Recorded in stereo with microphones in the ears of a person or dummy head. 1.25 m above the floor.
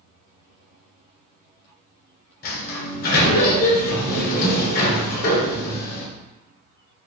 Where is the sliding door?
50° left (ahead or behind), 1.1 m.